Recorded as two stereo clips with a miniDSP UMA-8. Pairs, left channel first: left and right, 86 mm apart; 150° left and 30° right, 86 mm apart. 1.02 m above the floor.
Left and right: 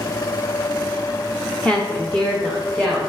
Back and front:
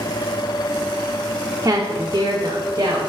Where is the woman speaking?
15° left, 1.0 m; by 3.0 s 10° left, 2 m.